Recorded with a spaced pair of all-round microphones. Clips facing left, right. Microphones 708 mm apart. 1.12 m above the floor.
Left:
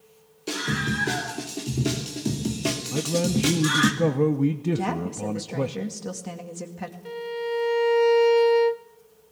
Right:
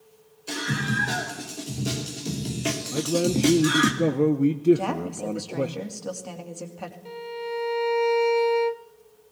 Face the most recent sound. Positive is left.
turn(degrees=45)  # may be behind; listen again after turning